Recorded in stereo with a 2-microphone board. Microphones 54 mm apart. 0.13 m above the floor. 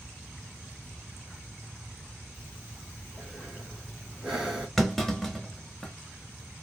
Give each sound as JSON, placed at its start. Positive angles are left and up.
{"t": 2.3, "sound": "breathing", "side_deg": 0, "distance_m": 2.0}
{"t": 4.8, "sound": "a clunk", "side_deg": 5, "distance_m": 0.8}